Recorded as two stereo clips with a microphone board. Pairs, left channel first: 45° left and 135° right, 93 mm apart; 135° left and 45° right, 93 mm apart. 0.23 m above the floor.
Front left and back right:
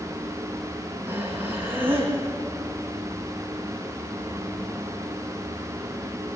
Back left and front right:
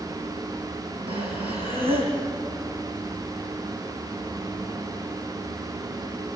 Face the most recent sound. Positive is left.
turn(degrees=-65)